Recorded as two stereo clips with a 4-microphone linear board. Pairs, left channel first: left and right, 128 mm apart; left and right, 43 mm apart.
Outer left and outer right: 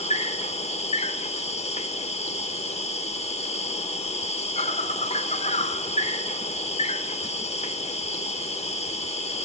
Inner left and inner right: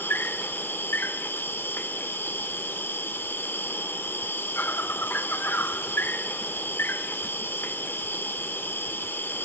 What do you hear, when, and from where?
0.0 s an insect: 60° left (ahead or behind), 0.7 m